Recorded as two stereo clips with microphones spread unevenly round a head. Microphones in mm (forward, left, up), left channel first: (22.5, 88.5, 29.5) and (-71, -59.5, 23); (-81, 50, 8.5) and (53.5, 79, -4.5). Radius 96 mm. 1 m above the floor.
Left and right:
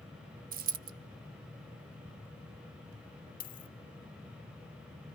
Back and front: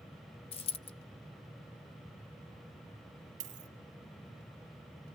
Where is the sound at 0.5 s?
145° right, 0.8 m.